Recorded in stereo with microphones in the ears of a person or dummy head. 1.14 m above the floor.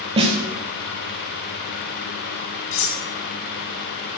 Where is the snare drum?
25° right (ahead or behind), 1.5 m.